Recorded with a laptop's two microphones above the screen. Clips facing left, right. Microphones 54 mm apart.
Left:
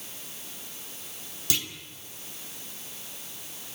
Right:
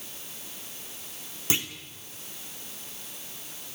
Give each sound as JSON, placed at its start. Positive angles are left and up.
{"t": 1.5, "sound": "a clunk", "side_deg": -25, "distance_m": 2.0}